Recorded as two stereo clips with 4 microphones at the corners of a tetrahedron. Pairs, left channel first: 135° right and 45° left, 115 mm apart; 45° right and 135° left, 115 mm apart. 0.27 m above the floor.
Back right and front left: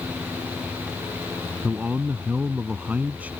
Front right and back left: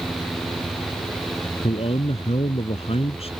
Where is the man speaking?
30° right.